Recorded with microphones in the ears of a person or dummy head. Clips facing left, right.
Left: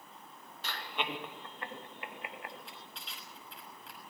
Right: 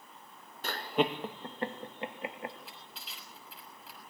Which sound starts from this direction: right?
Laughter, at 0.6 s.